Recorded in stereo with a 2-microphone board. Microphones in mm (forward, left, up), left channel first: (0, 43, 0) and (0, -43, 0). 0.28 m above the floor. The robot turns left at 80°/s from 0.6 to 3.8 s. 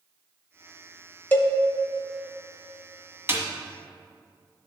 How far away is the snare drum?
About 1.3 m.